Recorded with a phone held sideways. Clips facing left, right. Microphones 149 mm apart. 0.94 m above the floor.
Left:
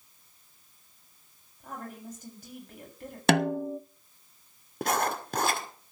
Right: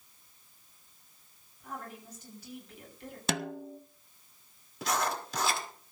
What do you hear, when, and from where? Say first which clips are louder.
1.6 s a woman speaking: left 3 dB; 50° left (ahead or behind), 7 m
3.3 s a snare drum: left 11 dB; 65° left (ahead or behind), 0.6 m
4.8 s writing: left 3 dB; 55° left (ahead or behind), 1.8 m